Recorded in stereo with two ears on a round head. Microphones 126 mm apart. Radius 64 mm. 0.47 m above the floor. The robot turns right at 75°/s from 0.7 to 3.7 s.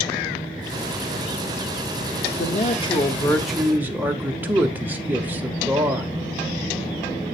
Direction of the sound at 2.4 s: 95° left.